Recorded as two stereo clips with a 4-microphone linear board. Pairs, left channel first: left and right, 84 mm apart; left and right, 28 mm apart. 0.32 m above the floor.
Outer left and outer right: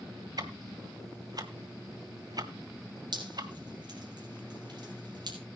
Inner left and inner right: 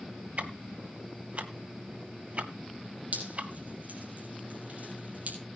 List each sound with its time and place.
0.4 s ticking: 50° right (ahead or behind), 1.3 m
3.1 s dripping: 60° right (ahead or behind), 4.5 m